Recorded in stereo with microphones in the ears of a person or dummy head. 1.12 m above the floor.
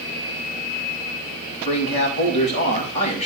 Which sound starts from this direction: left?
A man speaking, at 1.6 s.